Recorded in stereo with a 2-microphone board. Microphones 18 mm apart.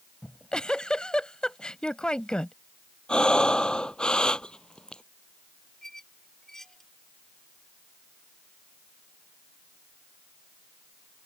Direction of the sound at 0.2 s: 65° left (ahead or behind).